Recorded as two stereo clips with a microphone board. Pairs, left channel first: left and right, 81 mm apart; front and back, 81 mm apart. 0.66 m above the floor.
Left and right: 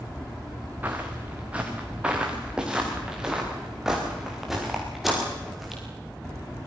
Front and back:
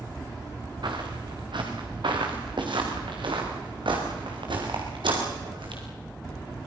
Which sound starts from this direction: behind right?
Footsteps, at 0.8 s.